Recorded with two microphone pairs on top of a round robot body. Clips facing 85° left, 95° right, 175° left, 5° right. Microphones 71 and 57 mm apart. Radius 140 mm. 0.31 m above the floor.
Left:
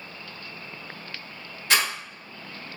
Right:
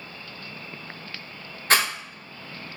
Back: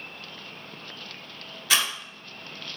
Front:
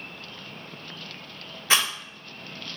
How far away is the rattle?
About 1.6 m.